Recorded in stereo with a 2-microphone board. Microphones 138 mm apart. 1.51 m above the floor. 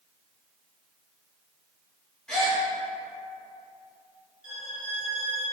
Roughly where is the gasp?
Centre.